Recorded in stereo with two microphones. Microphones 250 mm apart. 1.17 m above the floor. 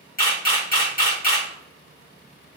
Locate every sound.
0.2 s a camera shutter: 35° left (ahead or behind), 1.5 m